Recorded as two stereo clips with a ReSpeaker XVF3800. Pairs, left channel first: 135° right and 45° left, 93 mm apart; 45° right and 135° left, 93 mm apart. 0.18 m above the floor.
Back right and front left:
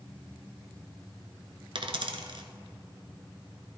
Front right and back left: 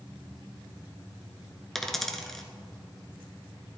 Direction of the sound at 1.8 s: 40° left.